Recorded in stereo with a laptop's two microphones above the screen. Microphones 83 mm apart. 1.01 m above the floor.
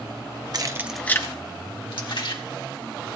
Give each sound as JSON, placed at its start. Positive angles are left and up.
{"t": 0.5, "sound": "keys jangling", "side_deg": -50, "distance_m": 0.7}